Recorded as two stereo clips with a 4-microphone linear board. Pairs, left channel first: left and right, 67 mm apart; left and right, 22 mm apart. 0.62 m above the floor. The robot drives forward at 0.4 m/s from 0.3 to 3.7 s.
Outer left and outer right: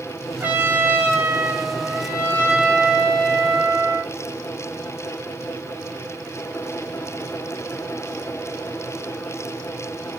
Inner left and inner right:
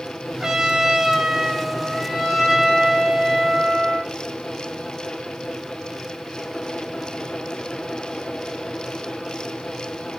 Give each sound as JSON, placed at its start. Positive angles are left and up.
{"t": 0.4, "sound": "a trumpet", "side_deg": -30, "distance_m": 0.7}